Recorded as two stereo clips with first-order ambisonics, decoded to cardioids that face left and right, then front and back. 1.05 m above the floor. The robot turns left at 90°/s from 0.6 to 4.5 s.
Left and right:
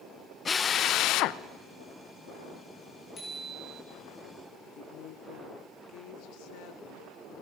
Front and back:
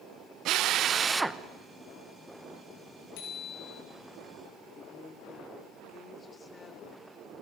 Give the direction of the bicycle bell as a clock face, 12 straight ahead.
11 o'clock.